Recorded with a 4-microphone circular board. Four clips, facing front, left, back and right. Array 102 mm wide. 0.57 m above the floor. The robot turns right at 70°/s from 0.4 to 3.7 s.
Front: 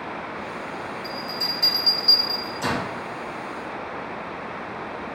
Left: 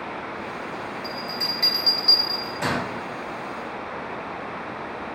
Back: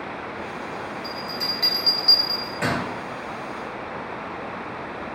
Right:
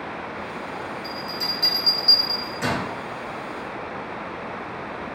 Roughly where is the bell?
Left.